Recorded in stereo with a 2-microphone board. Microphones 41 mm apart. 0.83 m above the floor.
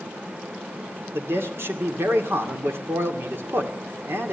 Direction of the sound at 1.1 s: 80° right.